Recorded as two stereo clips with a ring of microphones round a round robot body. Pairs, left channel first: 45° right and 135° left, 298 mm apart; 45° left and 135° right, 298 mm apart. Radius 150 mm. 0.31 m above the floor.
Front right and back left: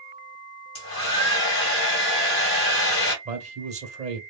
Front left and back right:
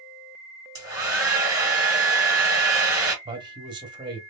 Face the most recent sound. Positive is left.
turn(degrees=170)